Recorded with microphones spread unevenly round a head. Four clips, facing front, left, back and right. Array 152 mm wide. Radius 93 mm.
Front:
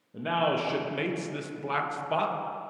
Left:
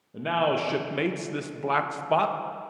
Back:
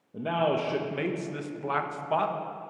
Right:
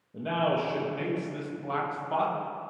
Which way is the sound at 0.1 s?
170° left.